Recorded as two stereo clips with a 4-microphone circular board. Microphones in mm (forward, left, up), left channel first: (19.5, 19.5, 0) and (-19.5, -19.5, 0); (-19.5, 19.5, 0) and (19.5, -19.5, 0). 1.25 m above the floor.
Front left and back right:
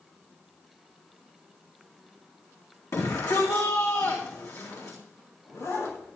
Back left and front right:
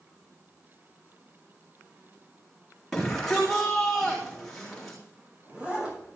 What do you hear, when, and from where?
2.9 s a shout: 55° left, 2.5 m
4.3 s a zipper: 25° left, 6.5 m